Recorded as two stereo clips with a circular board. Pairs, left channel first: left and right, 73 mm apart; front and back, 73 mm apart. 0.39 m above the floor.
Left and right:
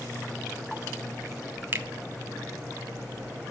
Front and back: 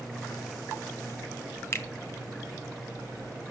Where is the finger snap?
45° right, 1.8 m.